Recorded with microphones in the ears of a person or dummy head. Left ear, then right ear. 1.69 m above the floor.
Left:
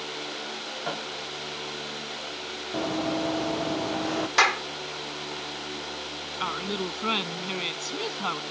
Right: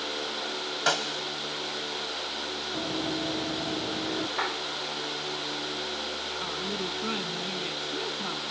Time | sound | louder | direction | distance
0.9 | a snare drum | right 8 dB | 65° right (ahead or behind) | ?
2.7 | running footsteps | left 5 dB | 50° left (ahead or behind) | ?
4.4 | a clap | left 13 dB | 75° left (ahead or behind) | ?
6.4 | a woman speaking | left 6 dB | 45° left (ahead or behind) | ?